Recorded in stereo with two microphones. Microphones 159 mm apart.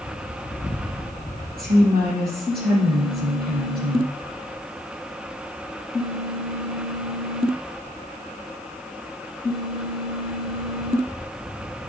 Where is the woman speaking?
70° right (ahead or behind), 3.5 m.